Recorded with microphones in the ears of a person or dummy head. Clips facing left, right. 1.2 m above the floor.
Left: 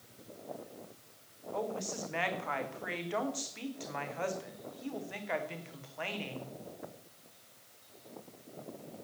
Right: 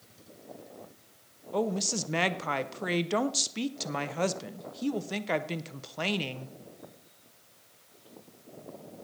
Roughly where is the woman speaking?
Right.